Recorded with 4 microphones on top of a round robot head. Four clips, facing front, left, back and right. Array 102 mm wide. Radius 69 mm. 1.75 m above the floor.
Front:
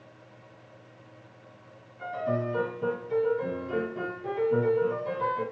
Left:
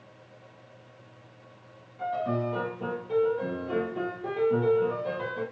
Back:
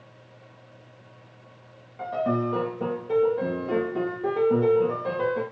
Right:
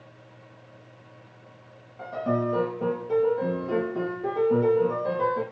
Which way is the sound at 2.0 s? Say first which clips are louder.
Right 2 dB, back 4 dB; 160° right.